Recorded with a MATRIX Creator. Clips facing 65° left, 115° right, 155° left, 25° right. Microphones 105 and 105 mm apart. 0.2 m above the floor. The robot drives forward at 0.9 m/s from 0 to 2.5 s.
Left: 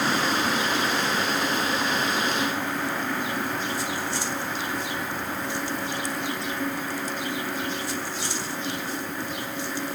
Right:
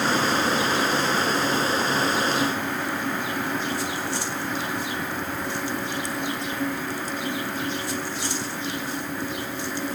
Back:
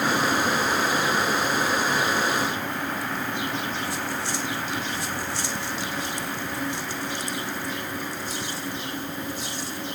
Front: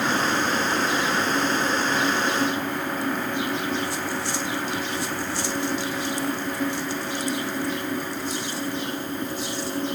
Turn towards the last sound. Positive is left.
No sound to turn to.